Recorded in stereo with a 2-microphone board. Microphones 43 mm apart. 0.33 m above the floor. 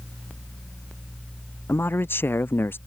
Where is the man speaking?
60° left (ahead or behind); by 2.8 s 55° left (ahead or behind).